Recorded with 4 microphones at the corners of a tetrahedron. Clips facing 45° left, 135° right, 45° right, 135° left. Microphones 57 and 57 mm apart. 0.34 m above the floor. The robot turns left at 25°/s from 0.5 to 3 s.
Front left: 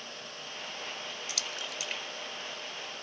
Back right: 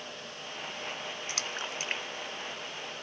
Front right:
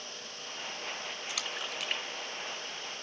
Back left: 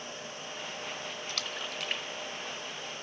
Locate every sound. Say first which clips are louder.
1.3 s a splash: back right 4 dB, front right 1 dB; 120° right, 0.5 m; by 3.0 s 160° right, 0.5 m